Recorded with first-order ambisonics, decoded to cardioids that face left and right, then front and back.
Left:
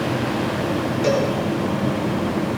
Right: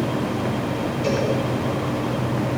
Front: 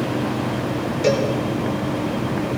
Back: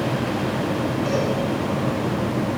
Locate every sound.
1.0 s a cowbell: 30° left, 4 m